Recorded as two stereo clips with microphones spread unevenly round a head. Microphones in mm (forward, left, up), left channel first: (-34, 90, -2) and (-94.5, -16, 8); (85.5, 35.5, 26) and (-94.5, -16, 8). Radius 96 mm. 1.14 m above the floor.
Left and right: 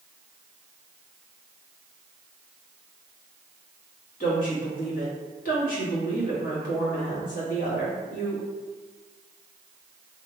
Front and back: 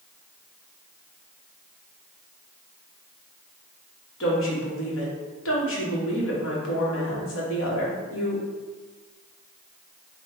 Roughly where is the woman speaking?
Ahead left.